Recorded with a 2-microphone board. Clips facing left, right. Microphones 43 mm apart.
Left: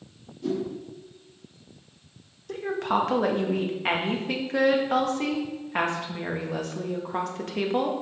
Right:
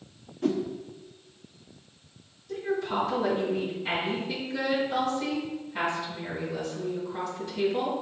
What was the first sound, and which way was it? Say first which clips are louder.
A whoosh: right 1 dB; 65° right (ahead or behind).